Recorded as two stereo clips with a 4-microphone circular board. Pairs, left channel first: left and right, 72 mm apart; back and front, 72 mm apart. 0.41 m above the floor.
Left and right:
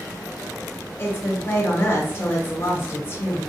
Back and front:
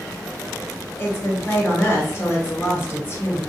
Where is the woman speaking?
135° left, 1.5 m.